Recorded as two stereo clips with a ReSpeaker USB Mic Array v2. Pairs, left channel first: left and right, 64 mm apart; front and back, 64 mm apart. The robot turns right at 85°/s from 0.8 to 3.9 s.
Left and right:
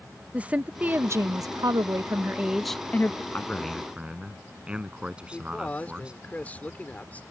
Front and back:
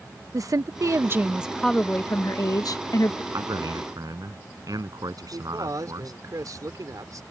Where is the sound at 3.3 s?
150° left; by 6.1 s 165° right.